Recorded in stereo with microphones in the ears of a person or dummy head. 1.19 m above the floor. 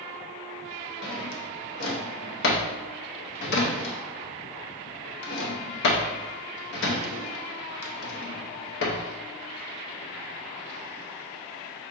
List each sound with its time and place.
1.0 s a drawer: 65° left (ahead or behind), 0.7 m